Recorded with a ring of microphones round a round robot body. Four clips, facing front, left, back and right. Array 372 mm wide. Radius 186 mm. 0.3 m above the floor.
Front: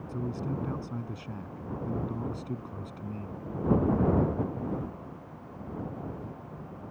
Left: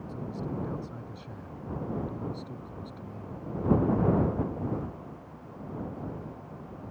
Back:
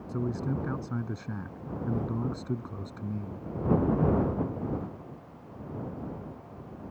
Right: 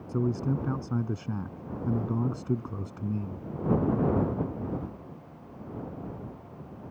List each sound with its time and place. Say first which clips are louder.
0.1 s a man speaking: right 8 dB, back 3 dB; 100° right